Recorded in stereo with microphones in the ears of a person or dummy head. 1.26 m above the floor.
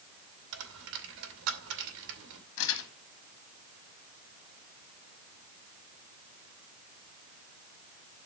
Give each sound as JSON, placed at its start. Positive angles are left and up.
{"t": 0.5, "sound": "a dropped coin", "side_deg": -75, "distance_m": 2.5}
{"t": 2.6, "sound": "crumpling", "side_deg": 75, "distance_m": 1.9}